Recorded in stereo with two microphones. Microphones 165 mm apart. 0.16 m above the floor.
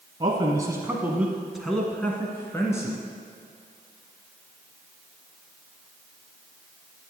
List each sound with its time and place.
0.2 s a man speaking: 30° right (ahead or behind), 1.5 m; by 3.0 s 20° left (ahead or behind), 2 m